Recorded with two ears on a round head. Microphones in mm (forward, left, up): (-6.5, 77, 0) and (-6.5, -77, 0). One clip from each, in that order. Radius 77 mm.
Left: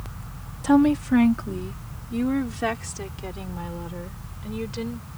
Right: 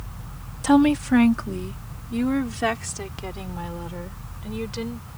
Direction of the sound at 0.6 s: 30° right (ahead or behind).